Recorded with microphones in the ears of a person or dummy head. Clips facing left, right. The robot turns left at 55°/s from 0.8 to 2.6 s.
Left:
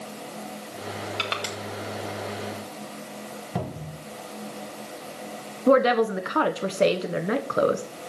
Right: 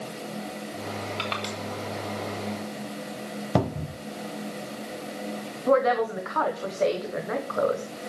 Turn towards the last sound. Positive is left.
turn(degrees=35)  # may be behind; listen again after turning